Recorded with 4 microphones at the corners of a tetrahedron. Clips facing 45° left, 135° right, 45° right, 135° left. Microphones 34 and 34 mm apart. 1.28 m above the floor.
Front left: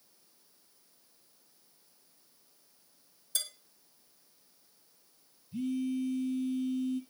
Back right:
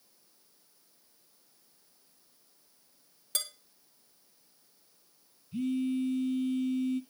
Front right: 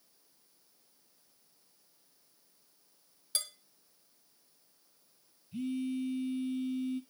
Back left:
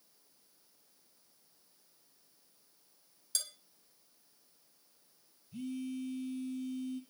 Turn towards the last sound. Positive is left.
turn(degrees=-105)